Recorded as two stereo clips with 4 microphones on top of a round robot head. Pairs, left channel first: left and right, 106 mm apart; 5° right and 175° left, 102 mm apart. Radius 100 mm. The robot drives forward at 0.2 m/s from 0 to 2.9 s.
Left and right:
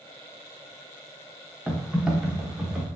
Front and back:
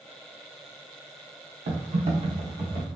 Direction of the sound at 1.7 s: 170° right.